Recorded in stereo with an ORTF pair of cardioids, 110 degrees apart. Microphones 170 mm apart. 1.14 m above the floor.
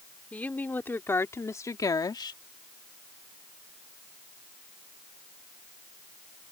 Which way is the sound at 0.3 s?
10° left.